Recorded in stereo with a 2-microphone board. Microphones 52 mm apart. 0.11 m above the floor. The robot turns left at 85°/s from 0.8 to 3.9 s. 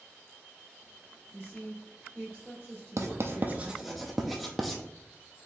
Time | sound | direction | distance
1.3 | a woman speaking | 55° left | 2.0 m
3.0 | writing | 75° right (ahead or behind) | 0.6 m